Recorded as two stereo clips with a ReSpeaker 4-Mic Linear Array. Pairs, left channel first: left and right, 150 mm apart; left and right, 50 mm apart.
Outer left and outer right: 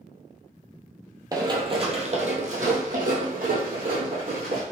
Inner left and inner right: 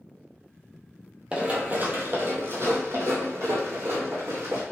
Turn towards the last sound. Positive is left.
turn(degrees=-75)  # may be behind; listen again after turning